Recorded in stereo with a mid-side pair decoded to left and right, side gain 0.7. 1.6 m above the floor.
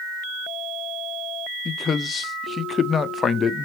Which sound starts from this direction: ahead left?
A man speaking, at 1.6 s.